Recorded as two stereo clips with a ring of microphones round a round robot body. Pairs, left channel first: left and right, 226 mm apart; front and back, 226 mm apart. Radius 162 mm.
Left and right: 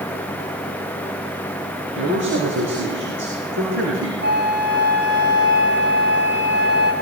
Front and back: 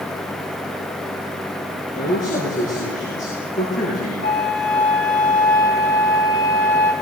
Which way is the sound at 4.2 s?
50° right.